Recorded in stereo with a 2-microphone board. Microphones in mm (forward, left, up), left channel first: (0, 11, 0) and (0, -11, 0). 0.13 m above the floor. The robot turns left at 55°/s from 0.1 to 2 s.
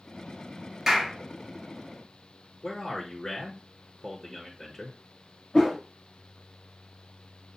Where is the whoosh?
40° left (ahead or behind), 3 m.